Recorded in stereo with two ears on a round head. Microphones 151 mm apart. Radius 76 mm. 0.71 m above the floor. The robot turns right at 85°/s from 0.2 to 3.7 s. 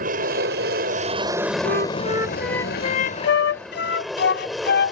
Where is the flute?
65° right; by 4.9 s 110° left.